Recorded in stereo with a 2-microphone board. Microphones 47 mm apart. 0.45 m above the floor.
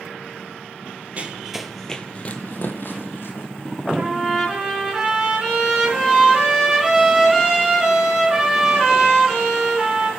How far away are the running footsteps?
About 0.8 m.